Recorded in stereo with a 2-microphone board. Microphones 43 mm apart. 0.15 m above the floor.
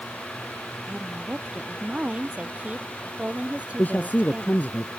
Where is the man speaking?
40° left (ahead or behind).